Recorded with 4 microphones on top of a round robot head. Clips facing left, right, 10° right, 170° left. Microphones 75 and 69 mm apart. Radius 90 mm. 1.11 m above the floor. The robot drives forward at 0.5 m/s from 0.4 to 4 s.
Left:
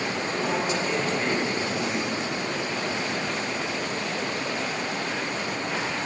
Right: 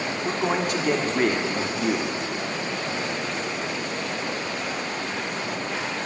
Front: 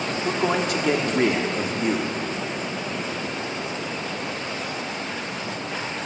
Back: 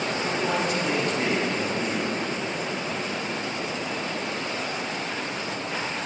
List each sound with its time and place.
0.2 s a man speaking: 45° right, 3.5 m; by 2.2 s 55° right, 3 m